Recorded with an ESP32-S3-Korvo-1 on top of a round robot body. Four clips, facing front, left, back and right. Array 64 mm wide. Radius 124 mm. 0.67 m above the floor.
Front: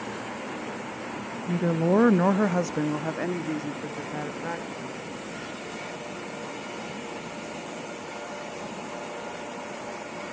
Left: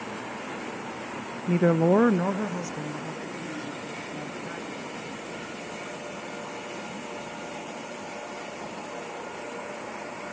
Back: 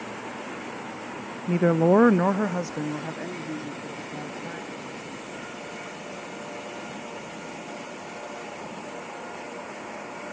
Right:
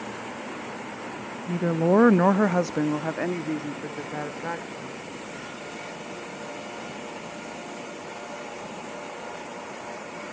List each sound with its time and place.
1.5 s a woman speaking: 140° left, 0.6 m; by 5.0 s 65° right, 2.5 m